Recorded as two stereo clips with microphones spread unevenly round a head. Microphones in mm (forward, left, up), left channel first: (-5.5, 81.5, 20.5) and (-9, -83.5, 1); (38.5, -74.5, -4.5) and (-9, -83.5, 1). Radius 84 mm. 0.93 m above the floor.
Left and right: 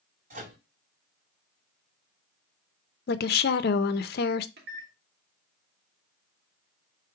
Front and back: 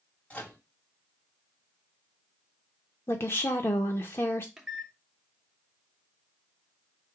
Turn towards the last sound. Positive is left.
turn(degrees=-85)